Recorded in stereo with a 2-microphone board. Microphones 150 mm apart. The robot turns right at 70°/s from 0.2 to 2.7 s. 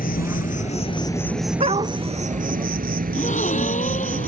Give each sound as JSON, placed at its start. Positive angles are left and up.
{"t": 0.0, "sound": "an insect", "azimuth_deg": 90}
{"t": 1.6, "sound": "a dog barking", "side_deg": -45}
{"t": 3.1, "sound": "a gasp", "side_deg": 50}